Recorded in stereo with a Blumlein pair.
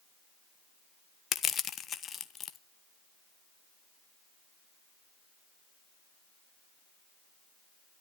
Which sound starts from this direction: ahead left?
Crushing, at 1.3 s.